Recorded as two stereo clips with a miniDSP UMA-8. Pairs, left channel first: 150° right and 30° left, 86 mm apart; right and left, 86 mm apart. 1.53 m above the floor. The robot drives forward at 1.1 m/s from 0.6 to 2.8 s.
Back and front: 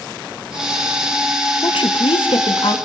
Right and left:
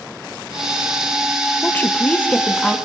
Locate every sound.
1.6 s a woman speaking: 155° right, 1.2 m; by 2.8 s 170° right, 2.5 m